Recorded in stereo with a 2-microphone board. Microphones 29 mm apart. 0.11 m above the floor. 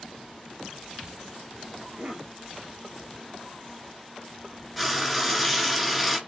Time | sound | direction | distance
1.8 | a cough | 45° right (ahead or behind) | 2.5 m
4.8 | frying | centre (ahead or behind) | 1.3 m